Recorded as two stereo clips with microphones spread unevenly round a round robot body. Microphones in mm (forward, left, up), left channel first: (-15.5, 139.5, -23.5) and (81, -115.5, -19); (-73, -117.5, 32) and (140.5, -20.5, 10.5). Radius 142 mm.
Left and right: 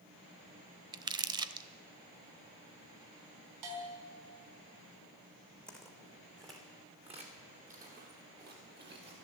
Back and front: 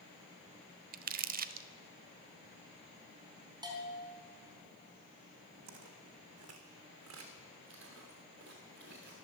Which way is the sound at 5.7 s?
25° left.